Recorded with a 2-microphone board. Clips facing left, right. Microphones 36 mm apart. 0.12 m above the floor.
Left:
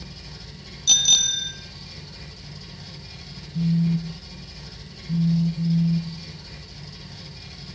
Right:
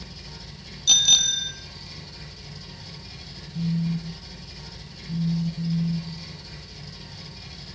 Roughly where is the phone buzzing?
Left.